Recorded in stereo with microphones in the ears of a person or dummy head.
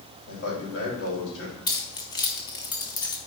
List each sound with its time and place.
0.3 s a man speaking: 85° left, 4 m; by 1.6 s 70° left (ahead or behind), 3.5 m
1.7 s keys jangling: 25° left (ahead or behind), 1.1 m